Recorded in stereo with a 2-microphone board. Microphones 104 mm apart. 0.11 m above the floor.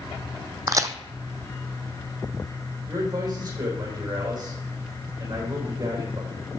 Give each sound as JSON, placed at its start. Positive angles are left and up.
{"t": 0.7, "sound": "a crack", "side_deg": -35, "distance_m": 0.7}
{"t": 2.9, "sound": "a man speaking", "side_deg": -45, "distance_m": 6.0}